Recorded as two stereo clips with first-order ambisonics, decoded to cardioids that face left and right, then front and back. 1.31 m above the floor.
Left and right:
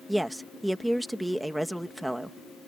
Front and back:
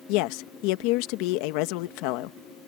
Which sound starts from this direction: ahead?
A woman speaking, at 0.1 s.